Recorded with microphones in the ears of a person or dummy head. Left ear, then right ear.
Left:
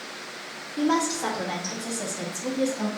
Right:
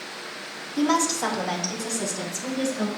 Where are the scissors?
No scissors in this recording.